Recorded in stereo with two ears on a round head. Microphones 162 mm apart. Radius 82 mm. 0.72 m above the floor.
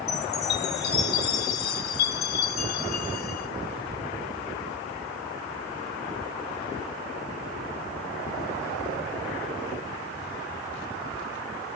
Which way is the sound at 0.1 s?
60° left (ahead or behind).